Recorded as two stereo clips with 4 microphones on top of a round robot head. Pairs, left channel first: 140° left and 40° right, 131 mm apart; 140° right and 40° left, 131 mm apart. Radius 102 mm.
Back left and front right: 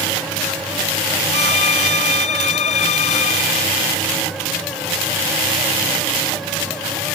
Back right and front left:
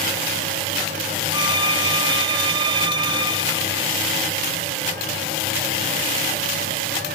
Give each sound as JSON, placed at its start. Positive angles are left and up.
{"t": 1.3, "sound": "a violin", "azimuth_deg": 100}